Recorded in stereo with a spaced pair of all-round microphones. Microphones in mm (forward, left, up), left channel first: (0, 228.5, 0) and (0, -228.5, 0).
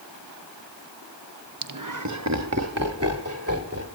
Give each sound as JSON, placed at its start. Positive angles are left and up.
{"t": 1.6, "sound": "laughter", "side_deg": -50, "distance_m": 0.6}